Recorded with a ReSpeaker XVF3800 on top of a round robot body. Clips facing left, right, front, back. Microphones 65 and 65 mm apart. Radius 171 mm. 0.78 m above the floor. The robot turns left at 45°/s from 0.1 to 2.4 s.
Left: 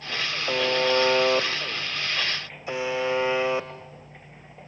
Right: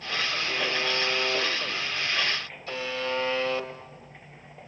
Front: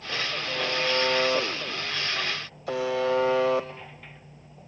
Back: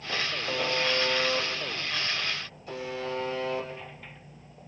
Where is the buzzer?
105° left, 0.9 m; by 4.7 s 15° left, 0.9 m.